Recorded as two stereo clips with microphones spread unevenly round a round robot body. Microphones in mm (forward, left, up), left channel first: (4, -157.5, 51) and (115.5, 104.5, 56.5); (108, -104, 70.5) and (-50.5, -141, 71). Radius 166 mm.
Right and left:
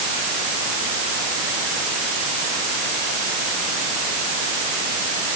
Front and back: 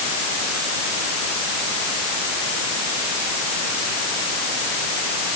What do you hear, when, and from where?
Only background noise.